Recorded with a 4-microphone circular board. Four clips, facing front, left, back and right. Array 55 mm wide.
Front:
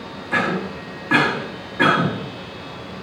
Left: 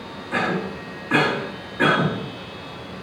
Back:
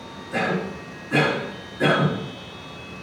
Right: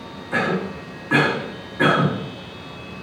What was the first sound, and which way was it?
A cough, 5° right.